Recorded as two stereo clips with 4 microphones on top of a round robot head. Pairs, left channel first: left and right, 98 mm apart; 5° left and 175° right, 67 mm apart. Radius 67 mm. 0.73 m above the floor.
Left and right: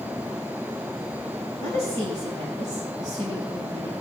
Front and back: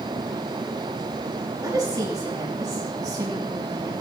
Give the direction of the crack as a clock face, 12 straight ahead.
I don't hear a crack.